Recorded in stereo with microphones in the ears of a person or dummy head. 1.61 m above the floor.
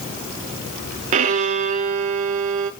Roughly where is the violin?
Right.